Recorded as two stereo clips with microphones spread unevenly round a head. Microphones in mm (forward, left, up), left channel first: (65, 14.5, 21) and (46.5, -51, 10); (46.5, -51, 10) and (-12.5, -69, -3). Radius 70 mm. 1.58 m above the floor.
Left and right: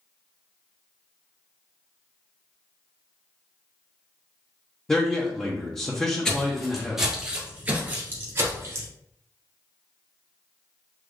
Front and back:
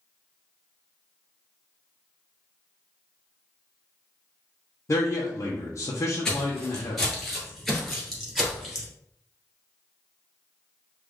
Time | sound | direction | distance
4.9 | a man speaking | straight ahead | 0.8 m
6.2 | footsteps | 45° left | 1.6 m